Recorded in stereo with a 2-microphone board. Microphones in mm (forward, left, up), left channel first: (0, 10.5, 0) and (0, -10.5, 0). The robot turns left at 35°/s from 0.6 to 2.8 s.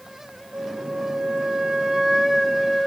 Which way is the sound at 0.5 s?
115° right.